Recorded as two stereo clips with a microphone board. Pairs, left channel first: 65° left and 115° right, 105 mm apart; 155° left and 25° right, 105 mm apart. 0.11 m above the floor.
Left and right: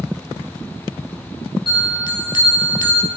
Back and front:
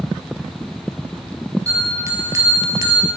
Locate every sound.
1.7 s a bell: 35° left, 2.5 m